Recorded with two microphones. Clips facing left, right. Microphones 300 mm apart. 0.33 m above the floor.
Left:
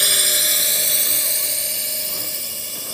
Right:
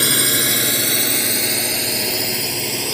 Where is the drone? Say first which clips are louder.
Right 9 dB; 65° right (ahead or behind); by 2.9 s 80° right.